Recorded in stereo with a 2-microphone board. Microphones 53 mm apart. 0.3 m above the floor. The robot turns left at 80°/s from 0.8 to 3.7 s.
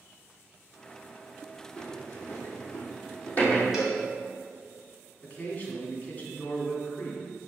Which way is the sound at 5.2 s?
30° left (ahead or behind).